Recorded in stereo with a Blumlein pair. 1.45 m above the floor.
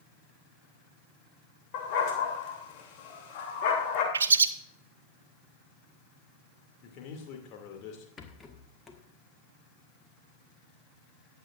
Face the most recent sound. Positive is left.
turn(degrees=15)